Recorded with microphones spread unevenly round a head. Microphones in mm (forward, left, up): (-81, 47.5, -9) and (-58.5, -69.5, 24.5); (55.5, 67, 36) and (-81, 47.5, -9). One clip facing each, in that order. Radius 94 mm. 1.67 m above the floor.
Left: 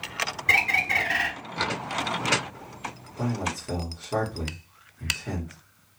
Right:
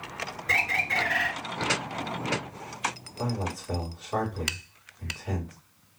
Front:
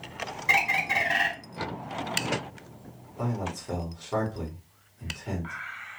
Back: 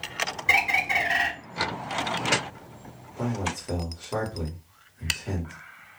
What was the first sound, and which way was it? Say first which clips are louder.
A bird: left 2 dB, back 1 dB; 100° left.